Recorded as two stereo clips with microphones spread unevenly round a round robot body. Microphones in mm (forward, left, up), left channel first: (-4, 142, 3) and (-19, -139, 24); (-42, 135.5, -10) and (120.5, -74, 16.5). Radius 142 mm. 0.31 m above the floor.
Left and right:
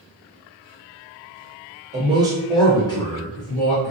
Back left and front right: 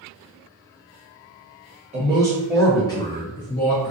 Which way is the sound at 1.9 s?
85° right.